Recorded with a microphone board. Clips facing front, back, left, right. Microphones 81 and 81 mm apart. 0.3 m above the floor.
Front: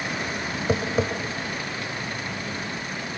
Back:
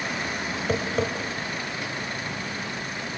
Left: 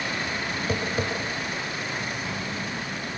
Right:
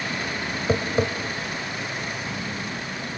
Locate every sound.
0.7 s tapping: 75° right, 1.5 m